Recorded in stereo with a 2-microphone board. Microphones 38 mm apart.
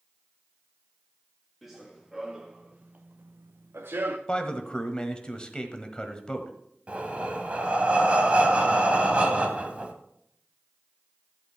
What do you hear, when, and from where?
1.6 s running footsteps: 5° left (ahead or behind), 2.5 m; by 4.2 s 60° right (ahead or behind), 1.4 m
4.3 s a man speaking: 25° left (ahead or behind), 1.3 m
6.9 s breathing: 25° right (ahead or behind), 1.9 m